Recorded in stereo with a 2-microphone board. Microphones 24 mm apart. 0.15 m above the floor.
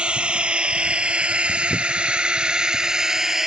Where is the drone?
55° right (ahead or behind); by 3.5 s 20° right (ahead or behind).